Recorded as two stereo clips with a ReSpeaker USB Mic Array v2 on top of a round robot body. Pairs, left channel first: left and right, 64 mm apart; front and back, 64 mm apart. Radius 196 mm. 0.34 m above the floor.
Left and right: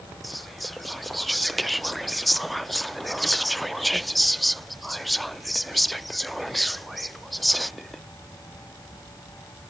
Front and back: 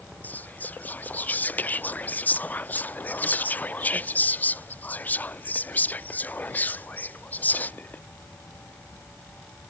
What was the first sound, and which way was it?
Whispering, straight ahead.